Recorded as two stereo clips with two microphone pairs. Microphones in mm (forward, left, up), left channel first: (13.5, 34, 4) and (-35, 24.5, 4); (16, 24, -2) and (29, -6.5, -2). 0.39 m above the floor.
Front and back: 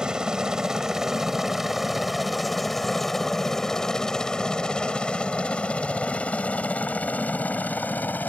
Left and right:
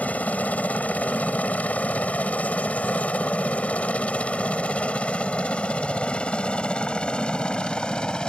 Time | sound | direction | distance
0.0 | a helicopter | 125° left | ?